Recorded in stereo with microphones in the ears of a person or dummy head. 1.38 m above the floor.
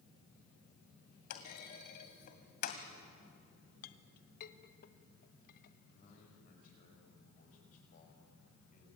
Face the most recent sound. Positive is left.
turn(degrees=50)  # may be behind; listen again after turning